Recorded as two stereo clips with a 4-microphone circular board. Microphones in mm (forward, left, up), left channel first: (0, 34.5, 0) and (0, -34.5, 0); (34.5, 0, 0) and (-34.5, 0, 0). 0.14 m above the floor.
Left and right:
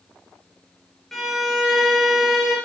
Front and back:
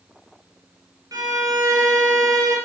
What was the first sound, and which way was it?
A violin, 175° left.